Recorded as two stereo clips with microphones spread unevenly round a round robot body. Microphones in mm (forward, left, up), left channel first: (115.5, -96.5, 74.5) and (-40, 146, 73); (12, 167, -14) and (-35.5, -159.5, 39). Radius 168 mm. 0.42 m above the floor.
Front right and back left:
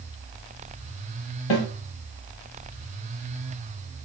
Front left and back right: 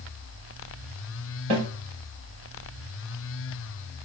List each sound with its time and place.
1.5 s a snare drum: 55° right, 0.9 m